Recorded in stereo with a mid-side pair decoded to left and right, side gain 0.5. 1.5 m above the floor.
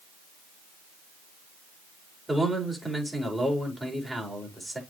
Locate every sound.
2.3 s a man speaking: 5° right, 5.5 m